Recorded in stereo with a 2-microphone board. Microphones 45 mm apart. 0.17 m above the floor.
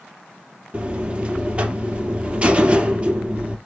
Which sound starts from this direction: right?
A buzzer, at 0.7 s.